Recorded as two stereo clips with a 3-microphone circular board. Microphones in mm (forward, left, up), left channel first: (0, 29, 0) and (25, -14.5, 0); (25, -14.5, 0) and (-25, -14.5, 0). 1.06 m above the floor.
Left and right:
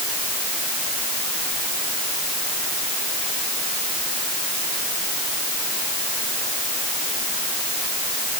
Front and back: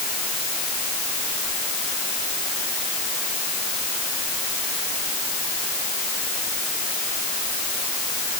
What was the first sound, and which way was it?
Only background noise.